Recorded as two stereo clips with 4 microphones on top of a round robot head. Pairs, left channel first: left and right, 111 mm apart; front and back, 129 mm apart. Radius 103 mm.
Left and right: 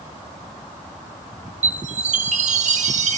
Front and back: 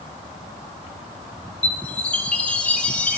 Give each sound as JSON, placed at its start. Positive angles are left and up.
{"t": 1.6, "sound": "a chime", "azimuth_deg": -85, "distance_m": 1.1}